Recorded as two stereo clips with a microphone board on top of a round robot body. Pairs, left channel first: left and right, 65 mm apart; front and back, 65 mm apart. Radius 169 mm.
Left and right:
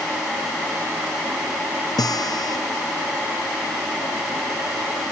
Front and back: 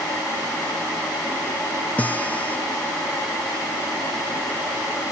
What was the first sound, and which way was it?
A guitar, 70° left.